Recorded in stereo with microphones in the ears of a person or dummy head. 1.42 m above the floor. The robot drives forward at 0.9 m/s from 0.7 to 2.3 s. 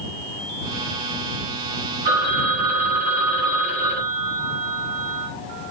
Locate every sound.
2.0 s a phone ringing: 50° right (ahead or behind), 6.5 m